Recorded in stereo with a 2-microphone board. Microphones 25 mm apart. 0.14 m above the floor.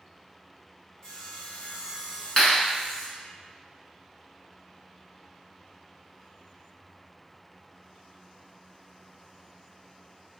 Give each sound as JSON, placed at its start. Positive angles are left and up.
{"t": 1.0, "sound": "sawing", "side_deg": 30, "distance_m": 1.1}
{"t": 2.4, "sound": "a clap", "side_deg": 35, "distance_m": 1.5}